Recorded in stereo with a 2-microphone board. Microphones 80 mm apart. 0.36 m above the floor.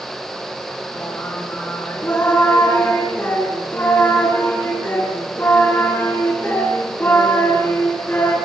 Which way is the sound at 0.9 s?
25° left (ahead or behind).